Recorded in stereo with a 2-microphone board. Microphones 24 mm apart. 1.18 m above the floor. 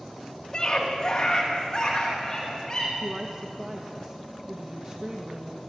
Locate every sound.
0.5 s a scream: 35° left (ahead or behind), 3 m; by 2.9 s 30° left (ahead or behind), 6 m
3.0 s a woman speaking: 30° right (ahead or behind), 1.8 m